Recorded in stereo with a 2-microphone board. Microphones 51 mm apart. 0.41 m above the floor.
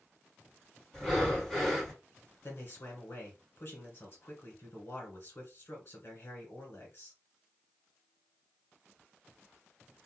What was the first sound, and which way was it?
Breathing, 10° left (ahead or behind).